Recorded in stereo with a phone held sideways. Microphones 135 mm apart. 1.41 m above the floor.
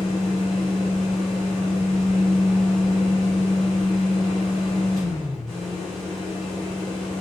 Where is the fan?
5° left (ahead or behind), 1.4 m.